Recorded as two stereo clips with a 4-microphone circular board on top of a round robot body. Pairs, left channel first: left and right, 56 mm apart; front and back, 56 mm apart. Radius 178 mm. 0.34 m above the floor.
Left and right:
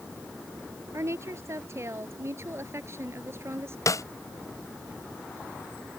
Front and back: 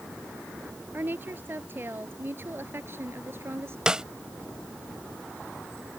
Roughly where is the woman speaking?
Behind right.